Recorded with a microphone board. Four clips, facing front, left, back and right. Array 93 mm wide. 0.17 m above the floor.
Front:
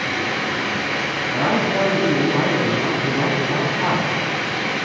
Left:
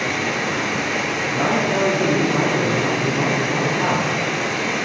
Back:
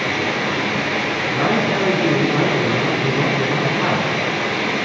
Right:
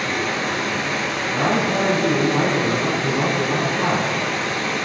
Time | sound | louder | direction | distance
0.0 | running water | left 1 dB, back 2 dB | 155° left | 1.2 m
1.3 | a man speaking | even, even | 170° left | 3 m